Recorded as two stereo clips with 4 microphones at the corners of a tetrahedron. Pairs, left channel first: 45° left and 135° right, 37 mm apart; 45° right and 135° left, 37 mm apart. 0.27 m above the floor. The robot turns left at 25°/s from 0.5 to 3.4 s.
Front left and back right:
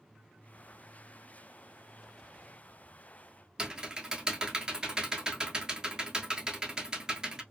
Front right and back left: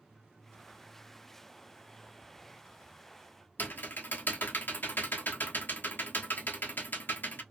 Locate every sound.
3.6 s typing on a keyboard: 70° right, 0.8 m